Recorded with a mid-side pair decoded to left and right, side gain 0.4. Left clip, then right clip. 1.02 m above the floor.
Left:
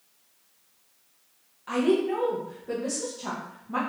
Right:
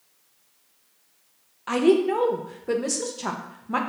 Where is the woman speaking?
60° right, 0.6 m.